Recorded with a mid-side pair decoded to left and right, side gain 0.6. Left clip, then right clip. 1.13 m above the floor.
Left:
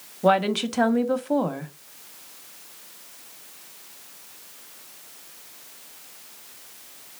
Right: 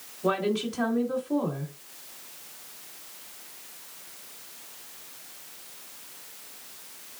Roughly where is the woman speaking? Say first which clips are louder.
Left 7 dB; ahead left.